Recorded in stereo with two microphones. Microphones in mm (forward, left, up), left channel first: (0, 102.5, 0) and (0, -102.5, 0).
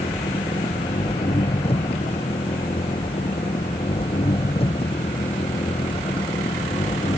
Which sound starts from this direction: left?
An engine running, at 0.0 s.